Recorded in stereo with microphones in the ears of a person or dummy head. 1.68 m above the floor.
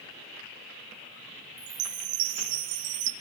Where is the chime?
65° right (ahead or behind), 1.9 m.